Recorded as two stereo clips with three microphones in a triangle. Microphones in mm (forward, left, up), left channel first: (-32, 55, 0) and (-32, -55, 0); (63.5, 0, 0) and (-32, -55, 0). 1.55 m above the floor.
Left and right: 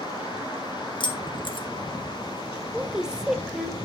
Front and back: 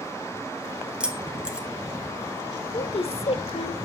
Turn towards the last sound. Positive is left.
turn(degrees=-5)